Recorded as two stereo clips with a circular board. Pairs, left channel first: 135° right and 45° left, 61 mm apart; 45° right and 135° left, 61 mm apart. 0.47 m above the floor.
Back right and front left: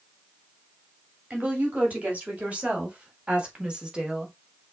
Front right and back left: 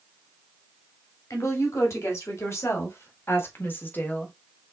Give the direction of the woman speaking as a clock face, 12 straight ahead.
1 o'clock.